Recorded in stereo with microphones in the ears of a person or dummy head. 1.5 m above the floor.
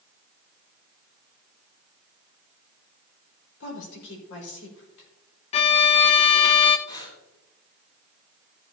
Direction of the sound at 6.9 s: 20° left (ahead or behind).